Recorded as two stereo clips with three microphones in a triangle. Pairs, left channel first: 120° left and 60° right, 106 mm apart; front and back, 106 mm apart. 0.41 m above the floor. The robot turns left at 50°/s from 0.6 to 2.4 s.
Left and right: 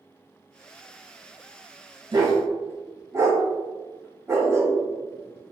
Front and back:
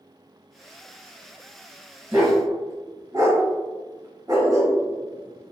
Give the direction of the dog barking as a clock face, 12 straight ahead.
4 o'clock.